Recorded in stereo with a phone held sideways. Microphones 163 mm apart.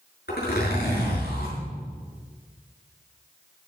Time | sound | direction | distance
0.3 | a zipper | 80° left | 7 m